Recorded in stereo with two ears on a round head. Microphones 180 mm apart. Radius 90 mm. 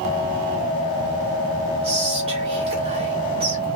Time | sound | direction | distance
1.8 | whispering | 30° right (ahead or behind) | 1.6 m